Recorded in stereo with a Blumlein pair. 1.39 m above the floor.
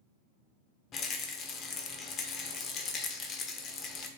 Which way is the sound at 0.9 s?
30° left.